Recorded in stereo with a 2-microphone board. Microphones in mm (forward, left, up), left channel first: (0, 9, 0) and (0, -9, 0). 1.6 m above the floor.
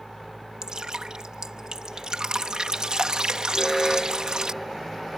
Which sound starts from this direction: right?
Dripping, at 0.6 s.